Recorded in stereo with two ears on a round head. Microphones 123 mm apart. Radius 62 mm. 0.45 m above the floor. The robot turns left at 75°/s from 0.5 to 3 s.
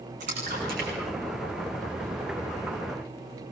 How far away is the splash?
About 9.5 m.